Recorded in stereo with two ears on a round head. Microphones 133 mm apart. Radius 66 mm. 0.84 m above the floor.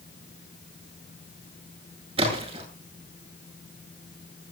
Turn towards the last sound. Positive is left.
turn(degrees=-40)  # may be behind; listen again after turning